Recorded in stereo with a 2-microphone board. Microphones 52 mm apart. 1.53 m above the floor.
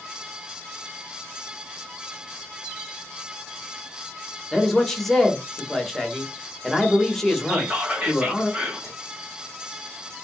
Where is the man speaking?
5° left (ahead or behind), 1.1 m.